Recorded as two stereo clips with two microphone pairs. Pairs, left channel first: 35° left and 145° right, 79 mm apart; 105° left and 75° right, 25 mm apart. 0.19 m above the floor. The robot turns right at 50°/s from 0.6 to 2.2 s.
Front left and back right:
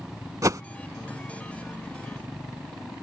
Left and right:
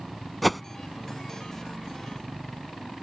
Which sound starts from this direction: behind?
A whoosh, at 0.4 s.